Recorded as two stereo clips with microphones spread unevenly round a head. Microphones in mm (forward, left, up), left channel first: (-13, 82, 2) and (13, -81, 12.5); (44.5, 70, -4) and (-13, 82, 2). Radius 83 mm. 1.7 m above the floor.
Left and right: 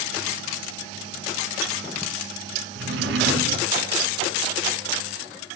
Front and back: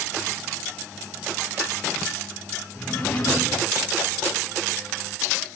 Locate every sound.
2.8 s a drawer: 90° right, 5 m